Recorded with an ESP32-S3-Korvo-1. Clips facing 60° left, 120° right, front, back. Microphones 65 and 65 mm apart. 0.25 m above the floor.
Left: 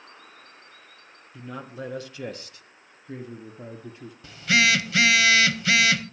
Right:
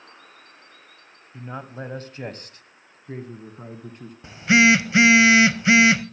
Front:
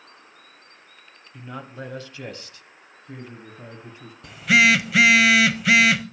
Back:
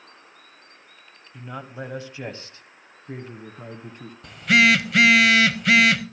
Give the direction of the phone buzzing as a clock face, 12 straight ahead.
3 o'clock.